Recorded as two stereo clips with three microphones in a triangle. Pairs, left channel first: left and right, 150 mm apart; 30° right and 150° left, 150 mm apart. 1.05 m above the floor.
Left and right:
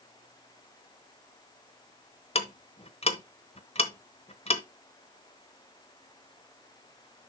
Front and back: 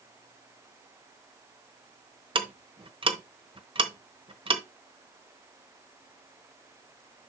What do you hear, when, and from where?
2.4 s ticking: 115° left, 1.0 m